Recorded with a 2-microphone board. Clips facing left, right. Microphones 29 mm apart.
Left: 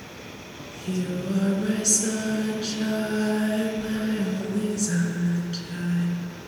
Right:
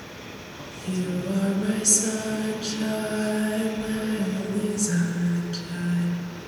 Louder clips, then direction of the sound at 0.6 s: Even; 5° left (ahead or behind).